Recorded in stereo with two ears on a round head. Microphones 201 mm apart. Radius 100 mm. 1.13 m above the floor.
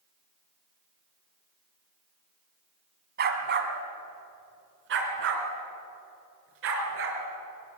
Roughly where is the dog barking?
Right.